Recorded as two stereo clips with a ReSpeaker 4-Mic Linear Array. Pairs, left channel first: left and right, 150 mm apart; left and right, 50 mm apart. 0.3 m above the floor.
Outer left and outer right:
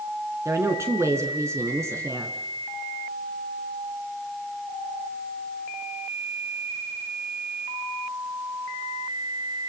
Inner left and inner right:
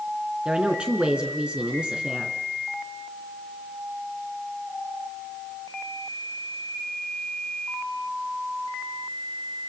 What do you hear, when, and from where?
0.5 s a woman speaking: 20° right (ahead or behind), 4 m